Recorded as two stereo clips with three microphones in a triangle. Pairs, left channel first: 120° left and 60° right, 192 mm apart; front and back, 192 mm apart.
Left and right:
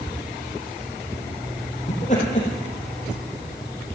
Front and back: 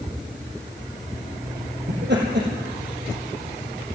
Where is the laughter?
170° left, 3.5 m.